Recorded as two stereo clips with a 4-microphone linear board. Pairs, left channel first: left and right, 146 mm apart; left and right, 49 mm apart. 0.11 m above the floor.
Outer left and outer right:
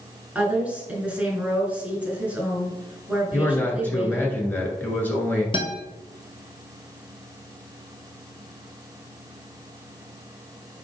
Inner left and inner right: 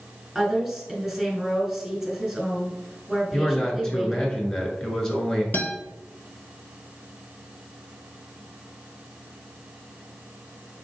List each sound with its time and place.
0.3 s a woman speaking: 10° right (ahead or behind), 1.2 m
3.3 s a man speaking: 10° left (ahead or behind), 1.1 m
5.5 s a guitar: 35° left (ahead or behind), 0.8 m